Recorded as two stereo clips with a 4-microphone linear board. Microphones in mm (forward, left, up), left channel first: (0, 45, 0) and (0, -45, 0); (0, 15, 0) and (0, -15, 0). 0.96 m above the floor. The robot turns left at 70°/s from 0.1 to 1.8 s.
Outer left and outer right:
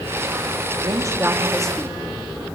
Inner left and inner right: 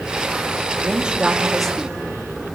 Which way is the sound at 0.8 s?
130° right.